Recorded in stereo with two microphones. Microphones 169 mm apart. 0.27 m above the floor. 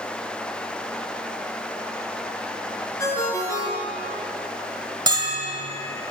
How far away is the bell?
About 1.4 m.